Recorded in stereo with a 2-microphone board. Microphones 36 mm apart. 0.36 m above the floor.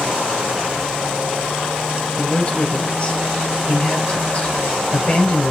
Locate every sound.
2.2 s a man speaking: 35° left (ahead or behind), 1.0 m